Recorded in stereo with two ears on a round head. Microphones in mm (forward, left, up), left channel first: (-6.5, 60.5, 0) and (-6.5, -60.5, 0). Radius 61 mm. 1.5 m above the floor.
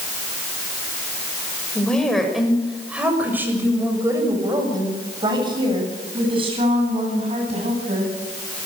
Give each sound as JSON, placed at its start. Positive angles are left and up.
{"t": 1.8, "sound": "a woman speaking", "side_deg": 5, "distance_m": 6.5}